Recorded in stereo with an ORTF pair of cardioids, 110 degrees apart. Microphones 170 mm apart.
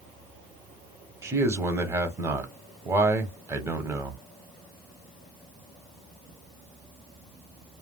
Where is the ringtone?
No ringtone in this recording.